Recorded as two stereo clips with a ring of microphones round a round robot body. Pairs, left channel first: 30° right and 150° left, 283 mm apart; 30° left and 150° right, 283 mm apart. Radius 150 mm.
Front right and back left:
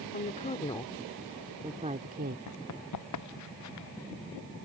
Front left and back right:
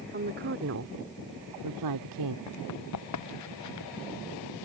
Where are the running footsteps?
Straight ahead.